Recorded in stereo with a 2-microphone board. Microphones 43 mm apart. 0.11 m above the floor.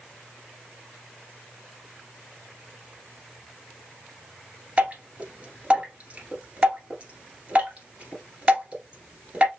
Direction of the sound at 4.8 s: 30° right (ahead or behind).